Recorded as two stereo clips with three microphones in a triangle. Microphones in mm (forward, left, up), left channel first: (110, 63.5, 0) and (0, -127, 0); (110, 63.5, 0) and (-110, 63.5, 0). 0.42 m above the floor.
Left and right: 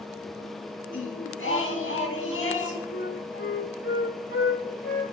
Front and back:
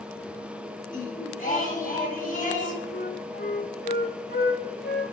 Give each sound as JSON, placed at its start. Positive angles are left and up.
{"t": 0.9, "sound": "singing", "azimuth_deg": 50, "distance_m": 3.5}
{"t": 2.9, "sound": "a flute", "azimuth_deg": 40, "distance_m": 1.2}